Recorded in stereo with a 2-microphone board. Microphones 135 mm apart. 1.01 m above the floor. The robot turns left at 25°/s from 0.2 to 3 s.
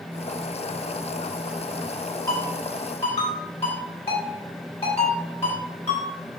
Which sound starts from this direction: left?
A ringtone, at 2.3 s.